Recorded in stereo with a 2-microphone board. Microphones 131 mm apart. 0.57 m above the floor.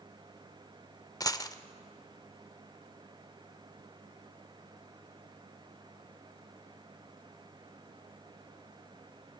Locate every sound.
1.2 s a dropped coin: 30° left (ahead or behind), 0.5 m